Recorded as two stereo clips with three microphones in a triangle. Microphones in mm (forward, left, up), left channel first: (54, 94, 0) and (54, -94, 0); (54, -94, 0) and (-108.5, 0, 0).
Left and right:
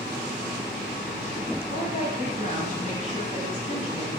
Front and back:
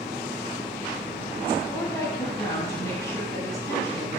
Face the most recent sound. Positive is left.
turn(degrees=40)